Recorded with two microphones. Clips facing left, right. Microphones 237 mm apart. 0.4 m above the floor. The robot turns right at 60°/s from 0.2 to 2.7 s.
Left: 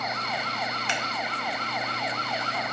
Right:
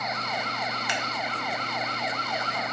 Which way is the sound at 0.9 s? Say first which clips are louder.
Even; 30° left (ahead or behind).